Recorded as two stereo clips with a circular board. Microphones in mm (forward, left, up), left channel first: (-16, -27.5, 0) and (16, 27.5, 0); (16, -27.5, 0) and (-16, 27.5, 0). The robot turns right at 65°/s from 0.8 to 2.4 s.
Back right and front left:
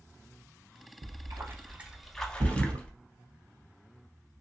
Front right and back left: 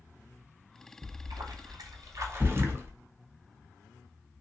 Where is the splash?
80° left, 0.5 m; by 2.9 s 170° left, 0.5 m.